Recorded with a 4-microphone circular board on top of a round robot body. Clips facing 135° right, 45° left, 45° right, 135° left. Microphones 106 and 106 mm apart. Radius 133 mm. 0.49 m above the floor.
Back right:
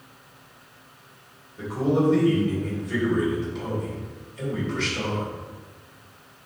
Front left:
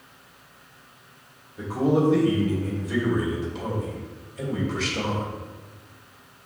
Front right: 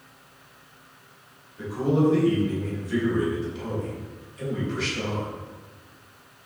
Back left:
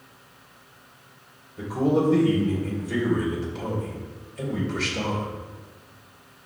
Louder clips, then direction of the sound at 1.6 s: Front left 1 dB, back left 1 dB; 130° left.